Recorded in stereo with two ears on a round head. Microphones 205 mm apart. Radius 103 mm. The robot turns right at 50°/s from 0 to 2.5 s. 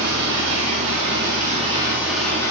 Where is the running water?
110° right, 8 m; by 2.5 s 15° left, 8 m.